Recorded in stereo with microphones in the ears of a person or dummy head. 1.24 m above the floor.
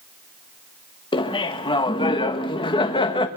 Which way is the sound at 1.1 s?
20° left (ahead or behind).